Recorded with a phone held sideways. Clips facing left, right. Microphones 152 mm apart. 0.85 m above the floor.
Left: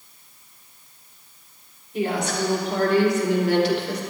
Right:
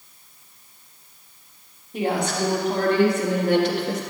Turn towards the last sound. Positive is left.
turn(degrees=-45)  # may be behind; listen again after turning